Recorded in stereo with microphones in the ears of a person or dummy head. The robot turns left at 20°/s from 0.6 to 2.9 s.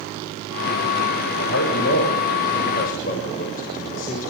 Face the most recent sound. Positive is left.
turn(degrees=50)